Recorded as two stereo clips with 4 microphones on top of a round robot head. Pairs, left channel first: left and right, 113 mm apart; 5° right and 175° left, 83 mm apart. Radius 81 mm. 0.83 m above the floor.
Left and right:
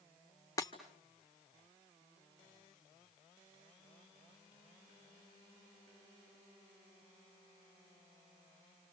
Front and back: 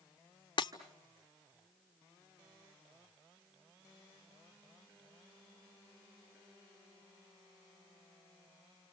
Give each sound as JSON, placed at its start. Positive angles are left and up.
{"t": 0.6, "sound": "breaking glass", "azimuth_deg": 25, "distance_m": 1.7}